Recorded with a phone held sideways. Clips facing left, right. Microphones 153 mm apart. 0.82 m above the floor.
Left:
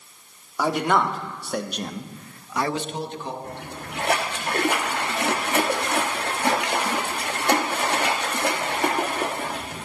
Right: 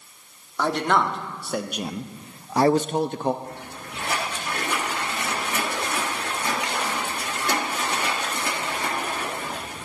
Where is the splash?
70° left (ahead or behind), 1.3 m.